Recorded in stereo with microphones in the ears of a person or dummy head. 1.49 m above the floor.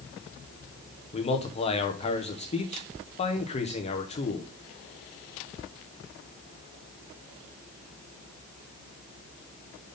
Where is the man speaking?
35° left (ahead or behind), 1.3 m.